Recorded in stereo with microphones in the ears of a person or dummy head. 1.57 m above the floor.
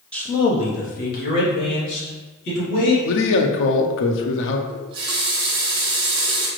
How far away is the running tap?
About 1.3 m.